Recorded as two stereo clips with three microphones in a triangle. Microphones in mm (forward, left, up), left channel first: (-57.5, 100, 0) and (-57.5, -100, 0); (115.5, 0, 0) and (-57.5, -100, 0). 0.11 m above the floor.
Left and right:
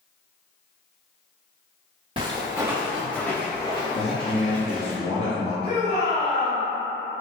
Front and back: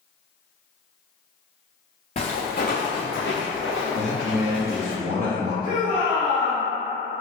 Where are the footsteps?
30° right, 0.9 m; by 5.0 s 45° left, 1.4 m.